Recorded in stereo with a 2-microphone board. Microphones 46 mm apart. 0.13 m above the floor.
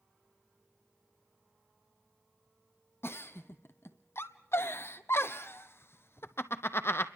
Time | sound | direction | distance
3.0 | a giggle | 65° left (ahead or behind) | 0.9 m